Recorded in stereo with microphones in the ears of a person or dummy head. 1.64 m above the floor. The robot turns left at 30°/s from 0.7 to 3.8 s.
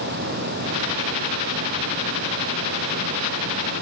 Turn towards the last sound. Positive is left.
No sound to turn to.